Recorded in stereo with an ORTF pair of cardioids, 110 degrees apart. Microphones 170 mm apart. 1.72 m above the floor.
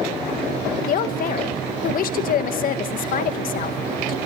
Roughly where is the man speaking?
Ahead left.